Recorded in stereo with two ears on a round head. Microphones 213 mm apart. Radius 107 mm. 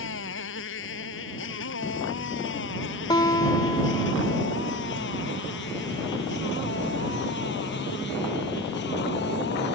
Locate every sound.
0.0 s a motorcycle: 55° left (ahead or behind); by 9.8 s 50° left (ahead or behind)
3.1 s a guitar: 20° left (ahead or behind)